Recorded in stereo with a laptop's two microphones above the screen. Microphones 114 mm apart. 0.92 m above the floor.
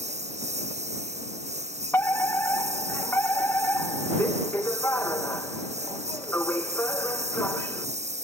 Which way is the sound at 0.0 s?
85° right.